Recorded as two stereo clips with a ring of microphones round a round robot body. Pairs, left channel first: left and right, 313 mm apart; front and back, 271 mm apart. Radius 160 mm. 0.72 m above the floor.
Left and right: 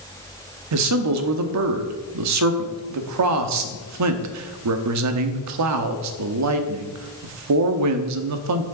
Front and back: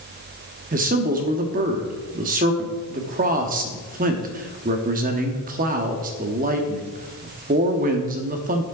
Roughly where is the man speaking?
Behind right.